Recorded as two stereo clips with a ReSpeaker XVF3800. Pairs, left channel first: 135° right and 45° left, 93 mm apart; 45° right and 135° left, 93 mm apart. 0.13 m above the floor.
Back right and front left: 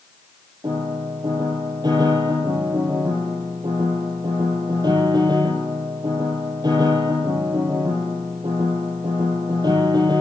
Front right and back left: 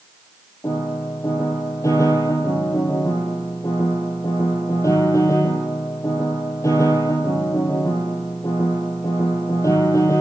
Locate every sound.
0.6 s a piano: 5° left, 4 m